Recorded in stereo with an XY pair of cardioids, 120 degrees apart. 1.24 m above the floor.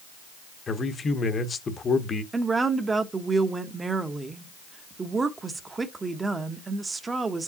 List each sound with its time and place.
0.7 s a man speaking: 35° left, 1.0 m
2.3 s a woman speaking: 25° right, 0.9 m